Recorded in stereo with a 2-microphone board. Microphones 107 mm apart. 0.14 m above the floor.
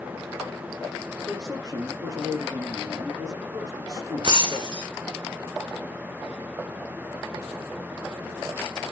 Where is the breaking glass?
50° right (ahead or behind), 1.1 m.